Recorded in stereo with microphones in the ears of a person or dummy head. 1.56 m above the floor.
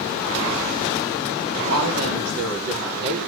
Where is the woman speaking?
85° right, 5.5 m.